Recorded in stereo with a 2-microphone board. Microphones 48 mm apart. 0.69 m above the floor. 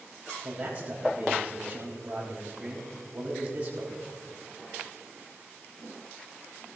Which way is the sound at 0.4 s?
35° right (ahead or behind).